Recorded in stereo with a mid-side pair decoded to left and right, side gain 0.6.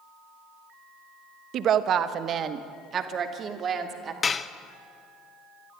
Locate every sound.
1.5 s a woman speaking: 55° right, 1.0 m; by 4.1 s 40° right, 2.5 m
4.2 s dishes clattering: 30° left, 0.8 m